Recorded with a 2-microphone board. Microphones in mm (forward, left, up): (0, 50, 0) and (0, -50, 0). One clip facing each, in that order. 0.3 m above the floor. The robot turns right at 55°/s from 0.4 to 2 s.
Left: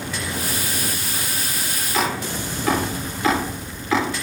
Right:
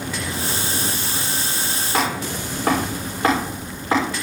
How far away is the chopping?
About 6.5 m.